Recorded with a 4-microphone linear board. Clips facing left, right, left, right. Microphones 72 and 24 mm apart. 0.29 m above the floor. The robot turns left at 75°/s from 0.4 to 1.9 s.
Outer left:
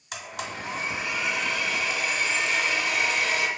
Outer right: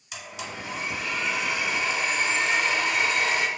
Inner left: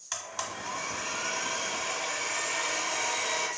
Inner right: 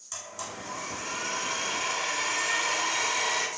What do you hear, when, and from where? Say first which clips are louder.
0.1 s a blender: outer left 2 dB, inner left 3 dB; 70° left, 0.6 m; by 3.5 s 45° right, 0.6 m